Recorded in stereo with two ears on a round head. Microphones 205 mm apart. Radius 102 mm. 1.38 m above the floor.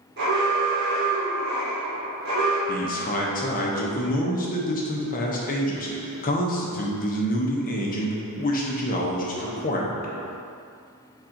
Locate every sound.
0.2 s an alarm: 45° right (ahead or behind), 1.5 m
2.7 s a man speaking: 35° left (ahead or behind), 0.6 m